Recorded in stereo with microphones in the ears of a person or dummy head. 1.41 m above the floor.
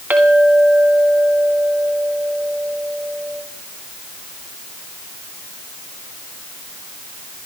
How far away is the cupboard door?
No cupboard door in this recording.